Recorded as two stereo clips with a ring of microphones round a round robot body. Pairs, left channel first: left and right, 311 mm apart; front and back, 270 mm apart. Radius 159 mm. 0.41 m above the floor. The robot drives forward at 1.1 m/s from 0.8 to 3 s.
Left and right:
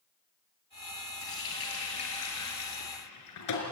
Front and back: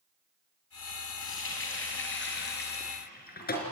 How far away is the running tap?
About 6 m.